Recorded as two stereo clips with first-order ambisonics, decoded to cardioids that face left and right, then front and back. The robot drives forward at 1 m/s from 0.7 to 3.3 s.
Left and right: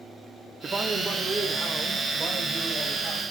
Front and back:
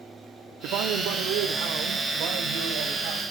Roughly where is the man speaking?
Behind.